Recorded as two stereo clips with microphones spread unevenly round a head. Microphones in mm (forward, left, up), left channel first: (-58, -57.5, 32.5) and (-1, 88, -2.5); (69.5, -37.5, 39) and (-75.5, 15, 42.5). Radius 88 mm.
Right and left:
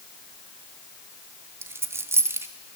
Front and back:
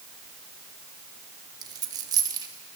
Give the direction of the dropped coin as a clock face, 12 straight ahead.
7 o'clock.